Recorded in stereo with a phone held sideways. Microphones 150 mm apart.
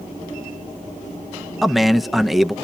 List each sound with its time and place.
1.6 s a man speaking: centre (ahead or behind), 0.6 m